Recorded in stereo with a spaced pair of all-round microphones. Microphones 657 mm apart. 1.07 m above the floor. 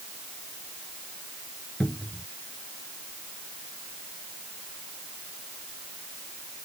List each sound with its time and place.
1.8 s a cupboard door: centre (ahead or behind)